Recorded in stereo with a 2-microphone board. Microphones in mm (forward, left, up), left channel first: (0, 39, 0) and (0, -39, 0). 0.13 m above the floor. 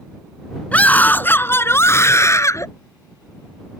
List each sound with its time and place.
0.7 s a scream: 20° left (ahead or behind); by 2.7 s 40° left (ahead or behind)